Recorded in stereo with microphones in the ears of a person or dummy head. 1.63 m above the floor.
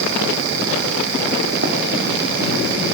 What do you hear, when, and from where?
1.6 s running footsteps: 50° right (ahead or behind), 5 m